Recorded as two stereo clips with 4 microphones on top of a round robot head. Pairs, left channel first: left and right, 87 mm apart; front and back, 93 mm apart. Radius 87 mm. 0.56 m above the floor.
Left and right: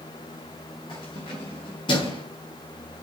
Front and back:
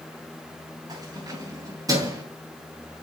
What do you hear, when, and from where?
0.9 s keys jangling: 135° left, 5.5 m; by 2.2 s 130° left, 4 m